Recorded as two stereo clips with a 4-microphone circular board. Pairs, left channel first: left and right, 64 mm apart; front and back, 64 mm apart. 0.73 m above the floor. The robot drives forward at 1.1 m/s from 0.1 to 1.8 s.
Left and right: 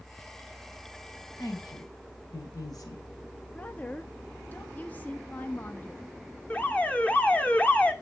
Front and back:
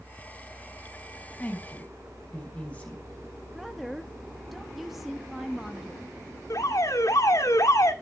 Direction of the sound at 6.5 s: 20° left.